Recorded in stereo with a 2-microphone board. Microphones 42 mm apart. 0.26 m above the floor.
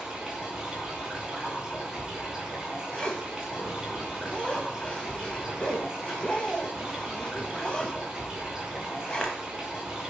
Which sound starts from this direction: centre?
Running water, at 0.0 s.